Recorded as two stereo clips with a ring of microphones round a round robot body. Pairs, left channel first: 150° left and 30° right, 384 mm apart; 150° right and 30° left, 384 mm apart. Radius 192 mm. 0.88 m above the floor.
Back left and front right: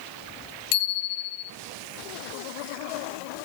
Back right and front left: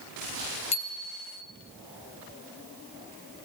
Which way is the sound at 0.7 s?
135° left.